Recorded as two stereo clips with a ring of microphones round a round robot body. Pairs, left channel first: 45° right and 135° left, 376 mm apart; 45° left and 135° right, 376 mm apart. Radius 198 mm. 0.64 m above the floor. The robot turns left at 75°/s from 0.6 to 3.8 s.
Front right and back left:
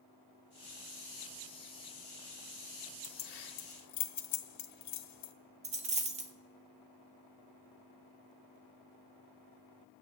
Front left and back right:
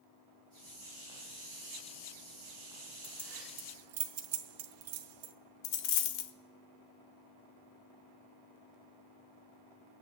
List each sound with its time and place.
3.0 s keys jangling: 30° right, 1.0 m; by 5.3 s 85° right, 1.0 m
5.6 s a dropped coin: 60° left, 0.8 m